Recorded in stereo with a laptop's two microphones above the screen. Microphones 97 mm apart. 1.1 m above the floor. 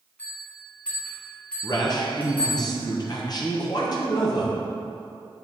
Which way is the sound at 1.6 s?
45° left (ahead or behind).